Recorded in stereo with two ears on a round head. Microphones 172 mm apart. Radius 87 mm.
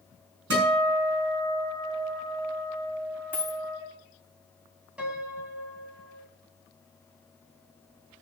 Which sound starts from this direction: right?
A guitar, at 0.5 s.